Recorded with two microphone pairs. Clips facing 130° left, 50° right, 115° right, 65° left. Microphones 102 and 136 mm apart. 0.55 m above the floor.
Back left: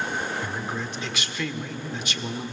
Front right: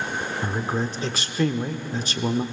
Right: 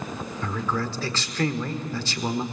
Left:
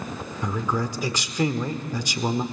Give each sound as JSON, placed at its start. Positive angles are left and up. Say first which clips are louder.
{"t": 0.4, "sound": "a man speaking", "louder": "front right 5 dB, left 2 dB", "azimuth_deg": -10, "distance_m": 1.2}